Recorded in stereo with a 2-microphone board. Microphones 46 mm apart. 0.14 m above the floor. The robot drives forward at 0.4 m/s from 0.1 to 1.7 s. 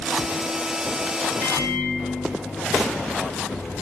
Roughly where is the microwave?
Left.